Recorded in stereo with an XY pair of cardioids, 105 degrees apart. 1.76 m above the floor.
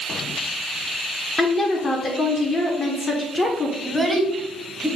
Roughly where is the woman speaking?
Ahead left.